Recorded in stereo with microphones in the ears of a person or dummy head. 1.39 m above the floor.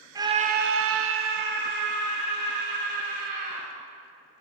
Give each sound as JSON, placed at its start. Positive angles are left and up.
{"t": 0.1, "sound": "a scream", "side_deg": -15, "distance_m": 0.9}